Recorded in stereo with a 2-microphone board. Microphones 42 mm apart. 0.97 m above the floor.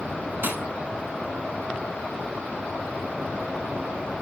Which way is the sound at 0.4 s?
55° right (ahead or behind).